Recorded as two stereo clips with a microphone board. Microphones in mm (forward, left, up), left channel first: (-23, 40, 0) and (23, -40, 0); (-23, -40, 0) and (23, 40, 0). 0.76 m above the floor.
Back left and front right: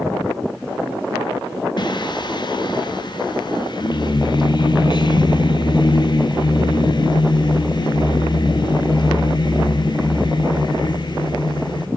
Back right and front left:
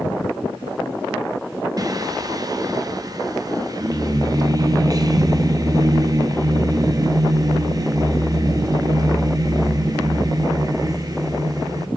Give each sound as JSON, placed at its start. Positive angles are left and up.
{"t": 1.8, "sound": "singing", "azimuth_deg": 100, "distance_m": 0.6}